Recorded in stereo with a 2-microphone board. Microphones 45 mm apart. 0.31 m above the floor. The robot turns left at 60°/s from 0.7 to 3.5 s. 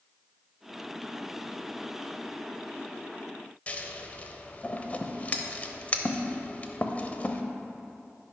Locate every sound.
3.7 s scissors: 35° left (ahead or behind), 0.7 m